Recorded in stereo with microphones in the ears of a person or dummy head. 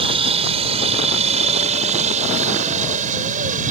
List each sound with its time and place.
0.0 s a helicopter: 30° right (ahead or behind); by 3.7 s 40° right (ahead or behind)